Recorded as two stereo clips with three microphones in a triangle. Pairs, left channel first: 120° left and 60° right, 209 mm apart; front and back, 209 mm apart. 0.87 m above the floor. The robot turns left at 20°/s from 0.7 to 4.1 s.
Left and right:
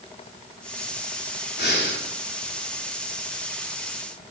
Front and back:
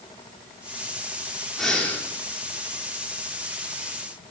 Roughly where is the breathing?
Left.